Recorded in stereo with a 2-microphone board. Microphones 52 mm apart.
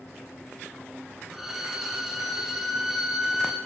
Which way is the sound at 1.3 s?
5° right (ahead or behind).